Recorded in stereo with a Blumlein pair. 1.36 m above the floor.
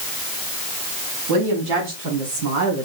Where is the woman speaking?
45° right, 3 m.